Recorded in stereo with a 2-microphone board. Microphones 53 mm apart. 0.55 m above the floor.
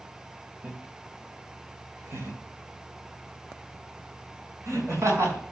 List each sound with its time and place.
0.6 s laughter: 35° right (ahead or behind), 1.2 m; by 5.4 s 65° right (ahead or behind), 5 m